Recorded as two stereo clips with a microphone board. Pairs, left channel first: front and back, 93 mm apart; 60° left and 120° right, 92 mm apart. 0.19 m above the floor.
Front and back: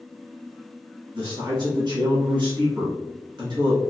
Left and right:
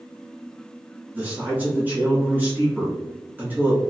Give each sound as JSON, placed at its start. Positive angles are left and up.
{"t": 1.1, "sound": "a man speaking", "azimuth_deg": 175, "distance_m": 1.8}